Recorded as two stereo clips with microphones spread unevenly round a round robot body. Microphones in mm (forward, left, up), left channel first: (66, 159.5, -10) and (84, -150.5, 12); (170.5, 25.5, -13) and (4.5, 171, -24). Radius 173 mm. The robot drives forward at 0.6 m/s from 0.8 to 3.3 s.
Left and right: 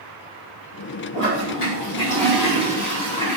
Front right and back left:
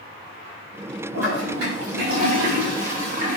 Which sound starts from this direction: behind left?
A toilet flushing, at 1.1 s.